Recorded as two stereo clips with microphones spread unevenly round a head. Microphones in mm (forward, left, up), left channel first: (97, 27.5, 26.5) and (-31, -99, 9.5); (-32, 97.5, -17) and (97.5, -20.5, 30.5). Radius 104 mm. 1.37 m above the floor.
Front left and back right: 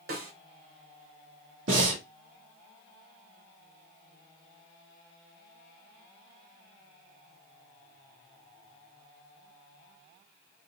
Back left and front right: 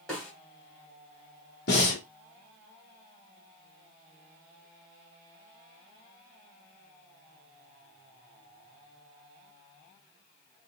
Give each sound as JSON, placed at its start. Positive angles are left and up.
{"t": 0.1, "sound": "a snare drum", "azimuth_deg": -125, "distance_m": 1.7}
{"t": 1.7, "sound": "breathing", "azimuth_deg": -170, "distance_m": 1.5}